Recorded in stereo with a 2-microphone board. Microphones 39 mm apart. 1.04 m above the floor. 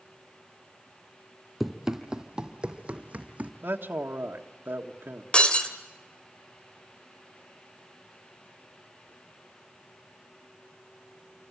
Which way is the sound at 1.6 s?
5° right (ahead or behind).